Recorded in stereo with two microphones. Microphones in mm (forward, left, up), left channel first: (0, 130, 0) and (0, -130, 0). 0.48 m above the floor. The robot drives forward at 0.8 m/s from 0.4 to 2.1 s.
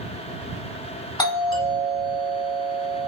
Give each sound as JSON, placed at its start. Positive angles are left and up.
{"t": 1.2, "sound": "a doorbell", "side_deg": 15, "distance_m": 1.9}